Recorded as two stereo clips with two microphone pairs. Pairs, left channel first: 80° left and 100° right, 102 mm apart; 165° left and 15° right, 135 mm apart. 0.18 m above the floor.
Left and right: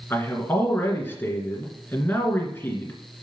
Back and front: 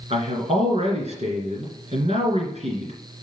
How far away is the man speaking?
About 2.5 m.